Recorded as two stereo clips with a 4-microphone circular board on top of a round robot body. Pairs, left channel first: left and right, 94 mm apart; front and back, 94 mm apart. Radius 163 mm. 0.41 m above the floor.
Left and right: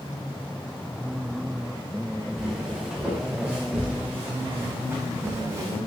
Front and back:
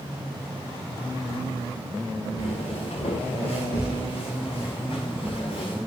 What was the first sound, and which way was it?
Footsteps, 5° right.